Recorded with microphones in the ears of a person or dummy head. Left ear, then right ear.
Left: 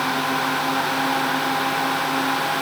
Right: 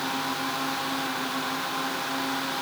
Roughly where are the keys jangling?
I don't hear keys jangling.